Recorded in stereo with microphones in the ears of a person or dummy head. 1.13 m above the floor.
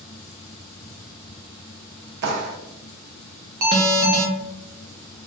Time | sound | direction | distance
2.2 | a clap | 55° right (ahead or behind) | 0.5 m
3.6 | an alarm | 45° right (ahead or behind) | 0.8 m